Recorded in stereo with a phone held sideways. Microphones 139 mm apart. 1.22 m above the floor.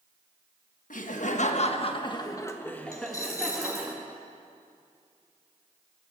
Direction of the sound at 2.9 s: 25° left (ahead or behind).